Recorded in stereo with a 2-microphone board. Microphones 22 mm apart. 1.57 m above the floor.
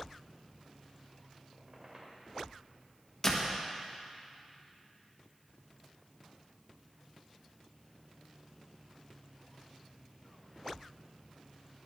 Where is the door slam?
25° left (ahead or behind), 1.3 m.